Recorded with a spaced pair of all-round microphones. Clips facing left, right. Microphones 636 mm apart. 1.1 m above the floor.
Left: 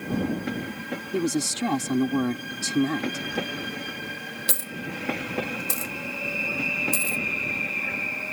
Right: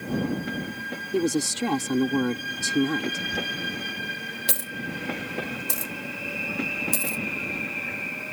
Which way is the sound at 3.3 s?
25° right (ahead or behind).